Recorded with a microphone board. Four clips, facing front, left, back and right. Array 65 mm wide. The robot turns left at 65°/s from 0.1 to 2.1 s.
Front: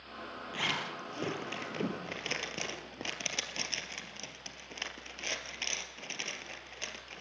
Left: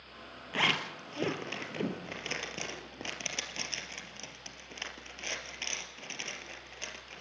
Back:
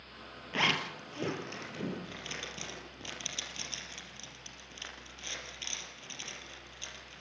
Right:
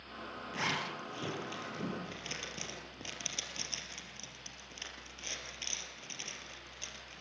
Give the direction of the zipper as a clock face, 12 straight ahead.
7 o'clock.